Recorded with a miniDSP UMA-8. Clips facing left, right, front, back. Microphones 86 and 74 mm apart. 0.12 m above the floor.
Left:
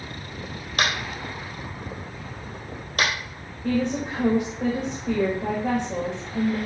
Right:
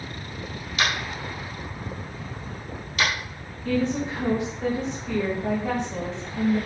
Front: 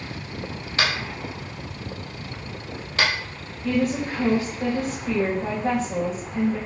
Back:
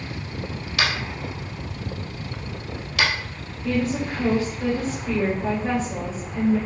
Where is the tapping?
55° left, 4 m.